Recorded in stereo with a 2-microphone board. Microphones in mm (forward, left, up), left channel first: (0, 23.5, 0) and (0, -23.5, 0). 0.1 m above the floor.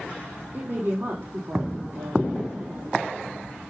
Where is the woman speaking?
50° right (ahead or behind), 4 m.